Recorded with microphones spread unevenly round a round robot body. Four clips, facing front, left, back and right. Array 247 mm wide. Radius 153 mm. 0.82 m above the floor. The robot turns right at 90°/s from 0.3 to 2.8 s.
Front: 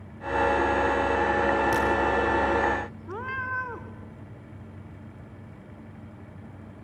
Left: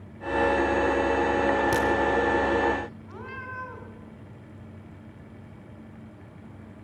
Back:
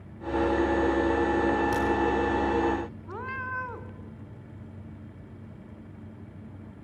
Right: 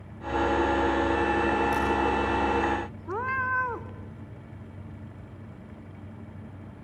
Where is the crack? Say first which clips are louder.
Left 2 dB, front 2 dB; 105° left, 3.5 m; by 1.9 s 120° left, 3.5 m.